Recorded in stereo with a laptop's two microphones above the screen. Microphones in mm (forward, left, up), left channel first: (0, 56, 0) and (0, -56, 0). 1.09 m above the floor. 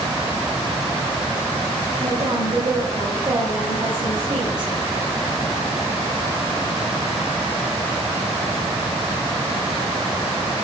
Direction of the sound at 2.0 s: 50° right (ahead or behind).